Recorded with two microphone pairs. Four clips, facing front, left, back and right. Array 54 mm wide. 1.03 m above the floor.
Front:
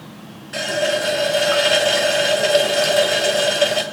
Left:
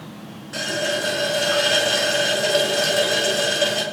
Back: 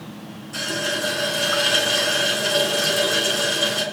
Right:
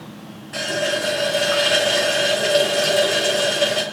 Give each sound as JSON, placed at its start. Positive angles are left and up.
{"t": 0.5, "sound": "a running tap", "azimuth_deg": -5, "distance_m": 3.5}